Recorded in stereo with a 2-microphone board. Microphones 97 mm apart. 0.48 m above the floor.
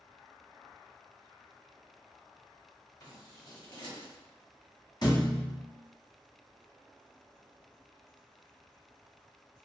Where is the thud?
45° left (ahead or behind), 1.0 m.